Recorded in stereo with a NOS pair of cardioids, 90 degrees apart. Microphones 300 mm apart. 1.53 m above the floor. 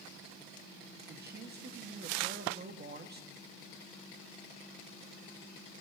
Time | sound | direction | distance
1.1 | a man speaking | 30° right | 1.4 m